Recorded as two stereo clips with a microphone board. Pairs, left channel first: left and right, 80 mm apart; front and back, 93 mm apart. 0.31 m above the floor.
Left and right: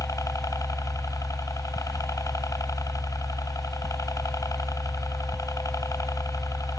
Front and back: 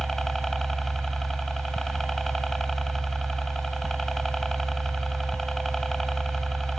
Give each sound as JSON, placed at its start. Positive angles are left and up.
{"t": 0.0, "sound": "a helicopter", "azimuth_deg": 85}